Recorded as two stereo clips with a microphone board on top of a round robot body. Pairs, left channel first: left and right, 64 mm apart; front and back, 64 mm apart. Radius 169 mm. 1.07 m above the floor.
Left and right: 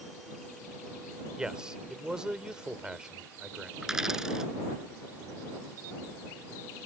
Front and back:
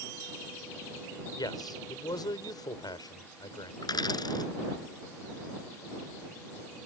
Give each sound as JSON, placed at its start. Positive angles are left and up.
{"t": 1.4, "sound": "a man speaking", "azimuth_deg": -10}
{"t": 3.8, "sound": "a dropped coin", "azimuth_deg": -5}